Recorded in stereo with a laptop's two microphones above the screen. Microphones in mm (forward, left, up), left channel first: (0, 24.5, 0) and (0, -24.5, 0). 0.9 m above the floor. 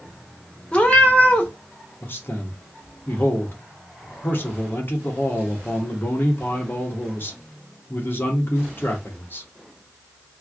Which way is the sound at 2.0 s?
45° left (ahead or behind).